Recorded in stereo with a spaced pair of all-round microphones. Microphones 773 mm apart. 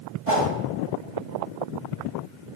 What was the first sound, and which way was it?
A whoosh, 50° right (ahead or behind).